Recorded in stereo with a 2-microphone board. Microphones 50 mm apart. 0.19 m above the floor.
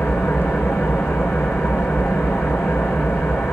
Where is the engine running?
65° left (ahead or behind), 7 m.